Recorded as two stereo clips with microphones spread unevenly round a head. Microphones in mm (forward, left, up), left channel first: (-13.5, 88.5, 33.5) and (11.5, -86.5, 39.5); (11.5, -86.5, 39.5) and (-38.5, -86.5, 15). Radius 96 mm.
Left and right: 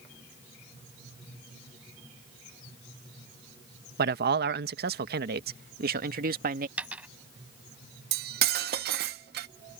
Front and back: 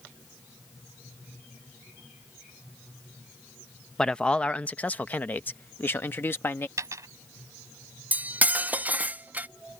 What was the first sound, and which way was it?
A man speaking, 90° right.